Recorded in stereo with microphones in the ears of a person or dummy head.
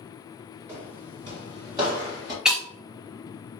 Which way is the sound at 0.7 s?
15° right (ahead or behind).